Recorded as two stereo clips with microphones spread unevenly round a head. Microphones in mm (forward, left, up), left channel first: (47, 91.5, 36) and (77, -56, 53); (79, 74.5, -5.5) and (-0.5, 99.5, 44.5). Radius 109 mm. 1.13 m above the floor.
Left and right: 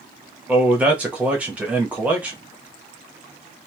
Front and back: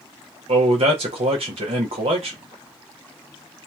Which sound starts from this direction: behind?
A man speaking, at 0.5 s.